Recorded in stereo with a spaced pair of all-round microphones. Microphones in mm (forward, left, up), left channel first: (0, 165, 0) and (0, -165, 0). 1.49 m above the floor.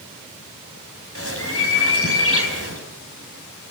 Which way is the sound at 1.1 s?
40° left (ahead or behind).